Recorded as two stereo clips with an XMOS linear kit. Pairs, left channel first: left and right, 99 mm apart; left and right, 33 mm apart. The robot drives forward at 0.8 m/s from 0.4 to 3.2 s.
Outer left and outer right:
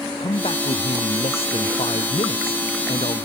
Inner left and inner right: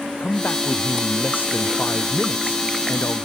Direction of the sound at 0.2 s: 80° left.